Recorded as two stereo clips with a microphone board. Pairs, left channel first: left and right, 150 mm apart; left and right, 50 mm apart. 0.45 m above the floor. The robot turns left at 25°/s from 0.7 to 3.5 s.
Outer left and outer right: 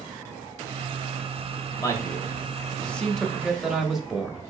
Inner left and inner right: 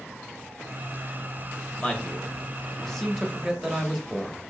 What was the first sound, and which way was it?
A man speaking, 40° left.